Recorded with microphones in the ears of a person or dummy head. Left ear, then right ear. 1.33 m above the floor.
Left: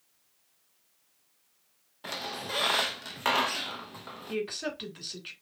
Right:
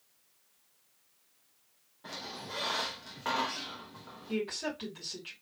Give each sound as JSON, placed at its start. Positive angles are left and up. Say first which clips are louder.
{"t": 2.0, "sound": "a squeak", "louder": "left 6 dB", "side_deg": 40, "distance_m": 0.6}
{"t": 4.3, "sound": "a woman speaking", "louder": "left 2 dB", "side_deg": 30, "distance_m": 3.0}